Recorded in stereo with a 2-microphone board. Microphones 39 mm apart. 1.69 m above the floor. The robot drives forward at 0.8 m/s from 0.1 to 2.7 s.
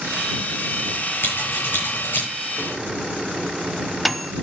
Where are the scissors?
70° left (ahead or behind), 9 m.